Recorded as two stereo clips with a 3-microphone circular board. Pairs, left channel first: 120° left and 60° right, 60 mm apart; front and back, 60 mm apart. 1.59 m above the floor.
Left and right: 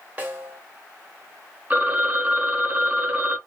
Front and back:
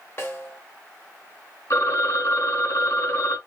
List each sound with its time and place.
0.2 s a snare drum: 10° right, 1.6 m
1.7 s a phone ringing: 5° right, 0.8 m